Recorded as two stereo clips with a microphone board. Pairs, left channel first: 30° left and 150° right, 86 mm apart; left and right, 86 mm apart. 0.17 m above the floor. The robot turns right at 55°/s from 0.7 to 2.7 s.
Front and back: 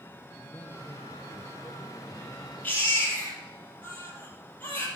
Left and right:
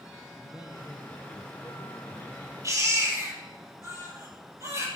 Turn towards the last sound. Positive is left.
turn(degrees=-40)